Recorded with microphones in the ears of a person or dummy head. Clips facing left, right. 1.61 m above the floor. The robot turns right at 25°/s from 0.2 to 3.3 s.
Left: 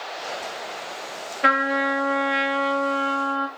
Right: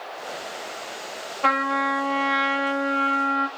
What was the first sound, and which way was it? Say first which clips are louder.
A trumpet: left 2 dB; 160° left.